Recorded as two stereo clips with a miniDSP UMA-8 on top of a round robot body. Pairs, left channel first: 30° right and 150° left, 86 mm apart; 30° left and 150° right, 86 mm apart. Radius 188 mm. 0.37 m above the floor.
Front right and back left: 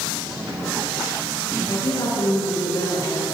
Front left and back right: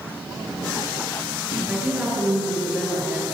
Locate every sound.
1.7 s a woman speaking: 70° right, 8 m